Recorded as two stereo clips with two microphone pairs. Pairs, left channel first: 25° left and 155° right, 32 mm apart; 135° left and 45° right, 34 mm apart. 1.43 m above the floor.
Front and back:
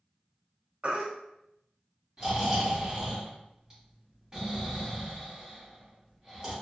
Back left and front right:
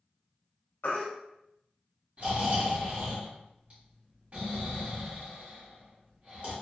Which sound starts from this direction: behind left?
A baby crying, at 0.8 s.